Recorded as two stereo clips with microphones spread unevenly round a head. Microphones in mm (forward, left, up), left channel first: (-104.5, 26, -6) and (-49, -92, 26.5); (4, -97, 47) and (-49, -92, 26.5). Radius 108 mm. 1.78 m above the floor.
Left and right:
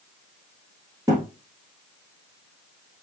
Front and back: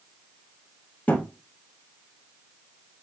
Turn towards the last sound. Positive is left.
turn(degrees=-15)